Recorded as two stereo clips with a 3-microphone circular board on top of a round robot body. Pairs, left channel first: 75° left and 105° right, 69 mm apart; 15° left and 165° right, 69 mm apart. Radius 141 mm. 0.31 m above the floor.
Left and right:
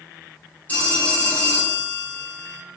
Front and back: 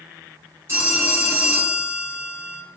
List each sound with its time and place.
0.7 s a phone ringing: 145° left, 1.8 m